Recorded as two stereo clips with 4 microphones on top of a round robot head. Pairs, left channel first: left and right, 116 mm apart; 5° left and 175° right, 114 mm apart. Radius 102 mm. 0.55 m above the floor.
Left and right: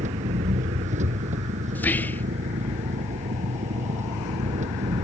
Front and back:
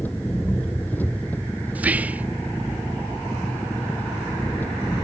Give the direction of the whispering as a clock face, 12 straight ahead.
8 o'clock.